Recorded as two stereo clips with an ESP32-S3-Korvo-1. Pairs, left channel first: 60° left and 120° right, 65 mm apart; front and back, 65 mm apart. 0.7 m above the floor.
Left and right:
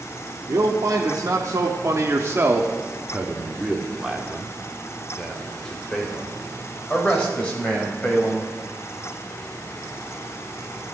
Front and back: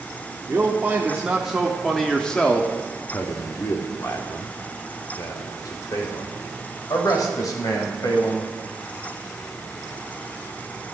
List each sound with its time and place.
0.5 s a man speaking: 125° right, 1.4 m; by 8.5 s 5° right, 3.5 m